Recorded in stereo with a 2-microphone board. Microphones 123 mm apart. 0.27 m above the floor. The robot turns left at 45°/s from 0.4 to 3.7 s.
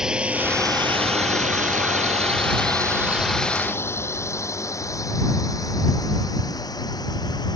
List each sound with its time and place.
0.0 s a drone: 5° right (ahead or behind); by 7.6 s 30° left (ahead or behind)